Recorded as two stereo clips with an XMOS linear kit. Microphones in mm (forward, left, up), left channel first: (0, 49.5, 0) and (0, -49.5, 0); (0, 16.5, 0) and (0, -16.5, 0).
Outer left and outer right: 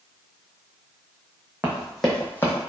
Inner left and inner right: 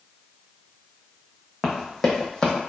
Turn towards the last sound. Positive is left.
turn(degrees=35)  # may be behind; listen again after turning